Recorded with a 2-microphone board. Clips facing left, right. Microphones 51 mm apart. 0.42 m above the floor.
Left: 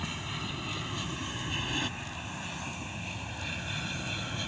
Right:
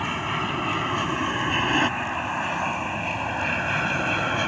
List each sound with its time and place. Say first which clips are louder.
0.0 s an aircraft: right 11 dB; 50° right (ahead or behind); by 4.5 s 55° right (ahead or behind)